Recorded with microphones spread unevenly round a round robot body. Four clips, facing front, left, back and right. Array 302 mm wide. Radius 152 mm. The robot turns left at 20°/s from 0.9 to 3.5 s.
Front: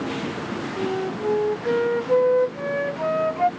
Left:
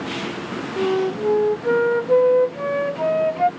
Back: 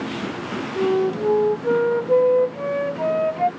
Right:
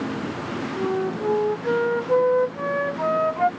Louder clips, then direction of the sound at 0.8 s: Left 5 dB, back 7 dB; 140° left.